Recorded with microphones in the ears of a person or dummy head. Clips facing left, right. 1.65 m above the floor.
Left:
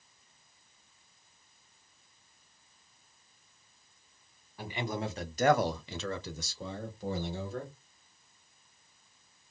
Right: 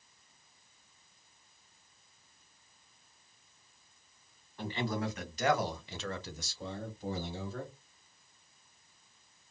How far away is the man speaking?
About 0.8 m.